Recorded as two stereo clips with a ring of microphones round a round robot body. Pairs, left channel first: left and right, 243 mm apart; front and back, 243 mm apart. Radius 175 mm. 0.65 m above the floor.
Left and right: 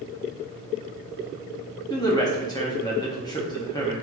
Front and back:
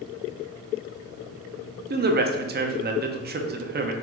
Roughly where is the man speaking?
Behind.